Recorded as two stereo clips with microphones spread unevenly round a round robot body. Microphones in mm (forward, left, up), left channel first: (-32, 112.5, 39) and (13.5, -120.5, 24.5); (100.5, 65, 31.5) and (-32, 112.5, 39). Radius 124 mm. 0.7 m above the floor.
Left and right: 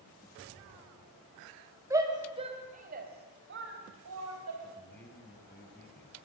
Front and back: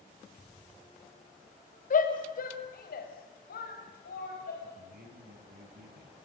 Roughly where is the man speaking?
Behind.